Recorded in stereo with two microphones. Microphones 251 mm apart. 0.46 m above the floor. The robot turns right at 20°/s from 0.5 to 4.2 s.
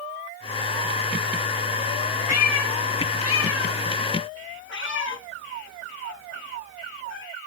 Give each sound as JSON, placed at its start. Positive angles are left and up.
{"t": 2.3, "sound": "a cat meowing", "side_deg": 90, "distance_m": 0.8}